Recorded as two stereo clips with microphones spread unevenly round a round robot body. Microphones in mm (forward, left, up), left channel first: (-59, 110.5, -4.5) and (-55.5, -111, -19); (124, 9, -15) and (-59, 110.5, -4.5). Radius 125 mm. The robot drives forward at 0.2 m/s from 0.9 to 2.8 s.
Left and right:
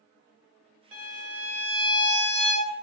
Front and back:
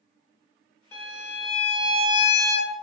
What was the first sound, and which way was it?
A violin, 100° right.